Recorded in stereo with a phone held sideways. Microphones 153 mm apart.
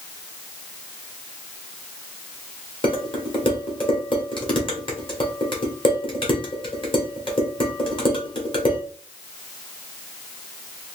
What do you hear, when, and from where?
2.8 s dishes clattering: 35° left (ahead or behind), 1.4 m